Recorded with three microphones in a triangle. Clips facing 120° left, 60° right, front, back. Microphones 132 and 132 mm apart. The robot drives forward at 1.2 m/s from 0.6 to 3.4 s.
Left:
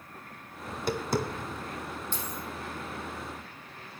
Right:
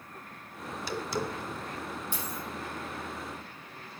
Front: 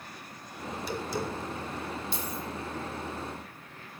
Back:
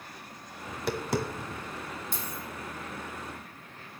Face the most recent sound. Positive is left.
turn(degrees=-145)